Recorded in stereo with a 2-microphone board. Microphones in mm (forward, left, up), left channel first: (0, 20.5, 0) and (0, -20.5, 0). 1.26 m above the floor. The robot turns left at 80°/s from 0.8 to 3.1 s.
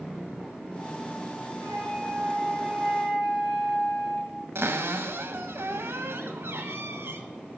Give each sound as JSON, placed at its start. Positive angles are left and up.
{"t": 1.6, "sound": "a flute", "azimuth_deg": -105, "distance_m": 2.5}
{"t": 4.5, "sound": "a cupboard door", "side_deg": -85, "distance_m": 1.0}